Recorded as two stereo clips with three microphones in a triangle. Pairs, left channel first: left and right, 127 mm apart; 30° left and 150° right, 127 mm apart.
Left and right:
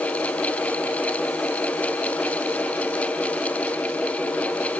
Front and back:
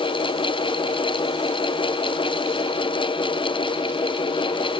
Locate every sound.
Only background noise.